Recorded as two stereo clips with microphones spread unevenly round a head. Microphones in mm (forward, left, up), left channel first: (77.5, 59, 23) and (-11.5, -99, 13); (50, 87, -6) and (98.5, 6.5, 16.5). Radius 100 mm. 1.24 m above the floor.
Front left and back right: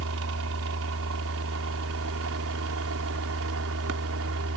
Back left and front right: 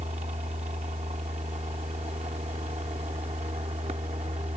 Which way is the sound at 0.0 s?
125° right.